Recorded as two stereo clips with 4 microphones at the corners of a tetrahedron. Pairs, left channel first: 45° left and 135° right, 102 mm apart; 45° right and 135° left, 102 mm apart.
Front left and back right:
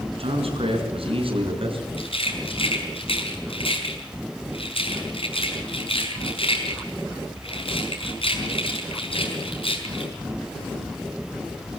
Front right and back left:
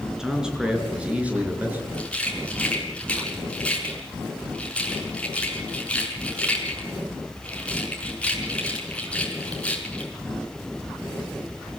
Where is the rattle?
30° left, 5 m.